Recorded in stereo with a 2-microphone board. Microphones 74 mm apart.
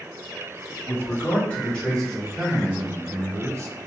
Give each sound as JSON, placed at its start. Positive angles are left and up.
{"t": 0.9, "sound": "a man speaking", "side_deg": 30, "distance_m": 1.7}